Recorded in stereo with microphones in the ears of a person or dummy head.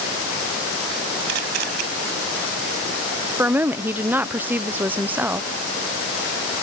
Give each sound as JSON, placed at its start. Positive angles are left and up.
{"t": 1.3, "sound": "a camera shutter", "side_deg": -75}
{"t": 3.4, "sound": "a woman speaking", "side_deg": -10}